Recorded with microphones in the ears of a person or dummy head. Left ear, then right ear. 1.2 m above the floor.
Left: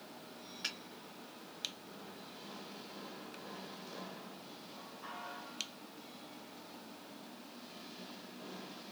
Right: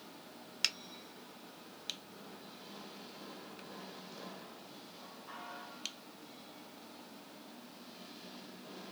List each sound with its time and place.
0.6 s a finger snap: 75° right (ahead or behind), 0.8 m